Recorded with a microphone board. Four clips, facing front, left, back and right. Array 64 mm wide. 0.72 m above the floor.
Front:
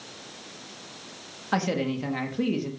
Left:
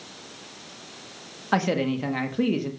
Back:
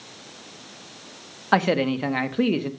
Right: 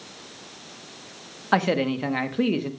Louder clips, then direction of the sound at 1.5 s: Right 2 dB, back 6 dB; 160° right.